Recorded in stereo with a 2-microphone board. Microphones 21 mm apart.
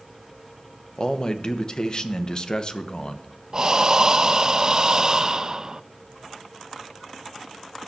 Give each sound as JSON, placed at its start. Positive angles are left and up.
{"t": 1.0, "sound": "a man speaking", "side_deg": 35, "distance_m": 1.1}
{"t": 3.5, "sound": "breathing", "side_deg": -35, "distance_m": 0.5}